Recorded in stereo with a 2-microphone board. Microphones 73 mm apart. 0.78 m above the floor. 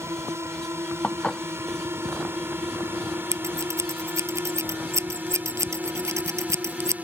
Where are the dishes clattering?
15° left (ahead or behind).